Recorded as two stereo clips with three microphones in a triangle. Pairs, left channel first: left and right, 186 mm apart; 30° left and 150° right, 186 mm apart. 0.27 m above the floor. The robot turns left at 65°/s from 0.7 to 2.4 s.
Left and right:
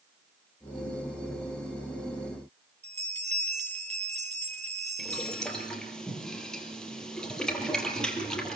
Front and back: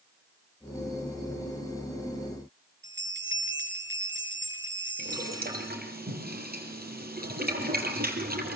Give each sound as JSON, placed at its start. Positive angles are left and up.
{"t": 2.8, "sound": "a bell", "azimuth_deg": -145, "distance_m": 7.5}
{"t": 5.0, "sound": "boiling", "azimuth_deg": 175, "distance_m": 4.5}